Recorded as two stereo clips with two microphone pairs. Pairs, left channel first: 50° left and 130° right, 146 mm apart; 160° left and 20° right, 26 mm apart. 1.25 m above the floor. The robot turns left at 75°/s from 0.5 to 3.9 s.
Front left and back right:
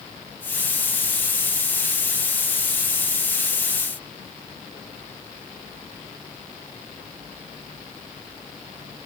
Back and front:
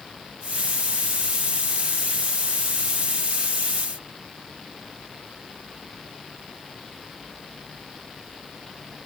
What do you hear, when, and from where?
Only background noise.